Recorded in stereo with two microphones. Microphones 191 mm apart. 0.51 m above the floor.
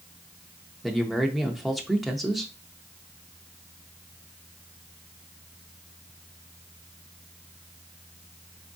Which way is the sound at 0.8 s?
Centre (ahead or behind).